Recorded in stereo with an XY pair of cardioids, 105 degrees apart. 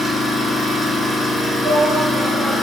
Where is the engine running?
5° right, 0.8 m.